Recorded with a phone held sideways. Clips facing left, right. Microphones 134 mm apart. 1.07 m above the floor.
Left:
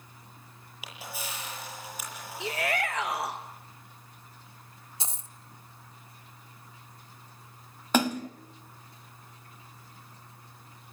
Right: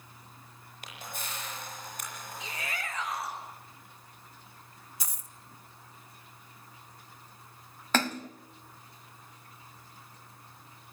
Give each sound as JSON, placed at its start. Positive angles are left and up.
{"t": 0.8, "sound": "a camera shutter", "side_deg": 5, "distance_m": 7.5}
{"t": 2.4, "sound": "a shout", "side_deg": 65, "distance_m": 1.0}
{"t": 5.0, "sound": "a dropped coin", "side_deg": 25, "distance_m": 0.5}
{"t": 7.9, "sound": "a splash", "side_deg": 15, "distance_m": 0.9}